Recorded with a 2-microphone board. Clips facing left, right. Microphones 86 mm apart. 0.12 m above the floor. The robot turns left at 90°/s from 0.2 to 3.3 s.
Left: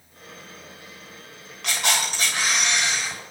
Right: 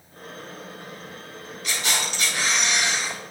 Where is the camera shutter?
90° left, 7 m; by 3.2 s 50° right, 7 m.